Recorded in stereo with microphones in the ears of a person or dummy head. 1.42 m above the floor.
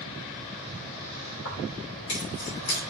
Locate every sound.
1.4 s keys jangling: 70° left (ahead or behind), 5 m